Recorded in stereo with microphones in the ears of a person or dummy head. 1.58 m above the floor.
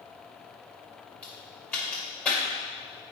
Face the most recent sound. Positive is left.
turn(degrees=5)  # may be behind; listen again after turning